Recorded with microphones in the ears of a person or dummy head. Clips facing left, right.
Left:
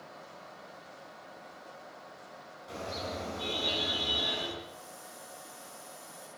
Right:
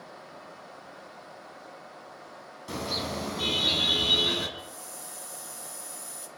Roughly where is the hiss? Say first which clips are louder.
Right 2 dB; right.